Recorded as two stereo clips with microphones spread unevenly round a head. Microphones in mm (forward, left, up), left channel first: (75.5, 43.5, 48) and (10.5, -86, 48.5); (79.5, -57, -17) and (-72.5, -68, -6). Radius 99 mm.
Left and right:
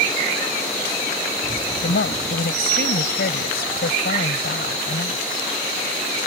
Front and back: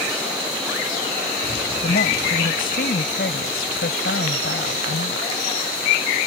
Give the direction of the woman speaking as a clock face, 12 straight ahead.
10 o'clock.